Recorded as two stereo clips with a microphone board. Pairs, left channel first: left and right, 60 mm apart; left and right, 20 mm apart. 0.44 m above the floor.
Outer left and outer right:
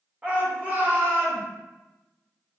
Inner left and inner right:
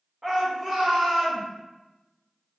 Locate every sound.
0.2 s a shout: 25° right (ahead or behind), 1.2 m; by 1.4 s 45° right (ahead or behind), 1.6 m